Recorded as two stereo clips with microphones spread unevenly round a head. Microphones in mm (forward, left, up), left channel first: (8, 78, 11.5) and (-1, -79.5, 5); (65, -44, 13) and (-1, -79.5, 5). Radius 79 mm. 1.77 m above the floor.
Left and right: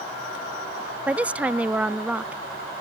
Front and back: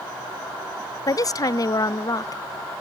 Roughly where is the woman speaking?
Ahead.